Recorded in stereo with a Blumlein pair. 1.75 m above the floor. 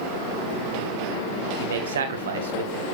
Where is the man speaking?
60° right, 1.7 m.